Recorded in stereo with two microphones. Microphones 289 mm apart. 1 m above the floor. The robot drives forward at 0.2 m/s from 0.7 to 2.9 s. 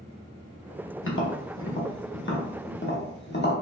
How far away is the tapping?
About 0.6 m.